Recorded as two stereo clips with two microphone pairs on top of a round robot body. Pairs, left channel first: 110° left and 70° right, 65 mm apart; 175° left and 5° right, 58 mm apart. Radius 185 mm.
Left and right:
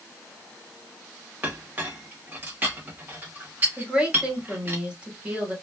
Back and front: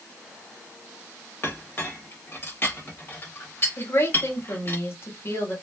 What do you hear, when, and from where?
1.4 s a clink: 135° right, 1.3 m
3.8 s a woman speaking: 145° right, 2 m